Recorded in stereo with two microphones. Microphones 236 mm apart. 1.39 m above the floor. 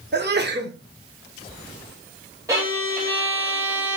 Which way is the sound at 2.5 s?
15° right (ahead or behind).